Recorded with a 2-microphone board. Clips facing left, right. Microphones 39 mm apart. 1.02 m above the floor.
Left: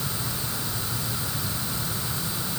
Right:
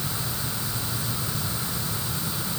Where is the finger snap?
I don't hear a finger snap.